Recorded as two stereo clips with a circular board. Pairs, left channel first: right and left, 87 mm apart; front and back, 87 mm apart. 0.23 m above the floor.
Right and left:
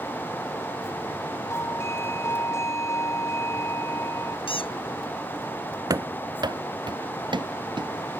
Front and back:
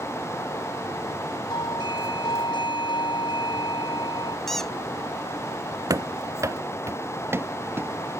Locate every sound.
1.5 s a doorbell: 30° right
4.5 s a squeak: 85° right
5.9 s running footsteps: 135° left; by 7.9 s 115° left